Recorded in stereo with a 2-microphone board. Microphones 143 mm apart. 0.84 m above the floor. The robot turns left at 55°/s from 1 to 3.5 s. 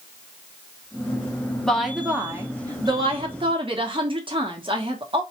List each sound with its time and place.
1.6 s a woman speaking: 10° left, 1.0 m; by 5.2 s 95° right, 1.0 m